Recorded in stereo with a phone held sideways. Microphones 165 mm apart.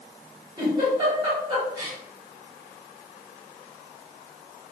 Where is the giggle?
30° right (ahead or behind), 1.7 m.